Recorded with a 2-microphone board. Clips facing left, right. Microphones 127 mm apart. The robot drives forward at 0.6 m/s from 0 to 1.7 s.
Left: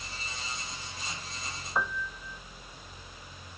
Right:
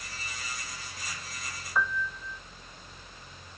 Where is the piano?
25° left (ahead or behind).